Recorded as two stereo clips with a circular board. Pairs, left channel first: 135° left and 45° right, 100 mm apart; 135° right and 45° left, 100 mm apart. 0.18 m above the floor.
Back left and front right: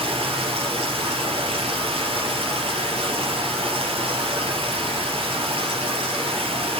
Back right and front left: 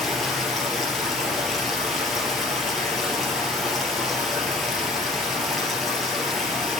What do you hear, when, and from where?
0.0 s running water: 45° right, 3 m